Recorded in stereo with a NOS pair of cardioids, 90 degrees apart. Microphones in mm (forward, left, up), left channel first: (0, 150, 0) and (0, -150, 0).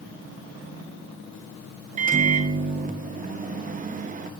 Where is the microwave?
25° right, 0.5 m.